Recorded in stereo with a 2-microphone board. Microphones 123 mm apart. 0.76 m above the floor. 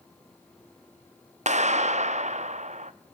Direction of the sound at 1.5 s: 70° right (ahead or behind).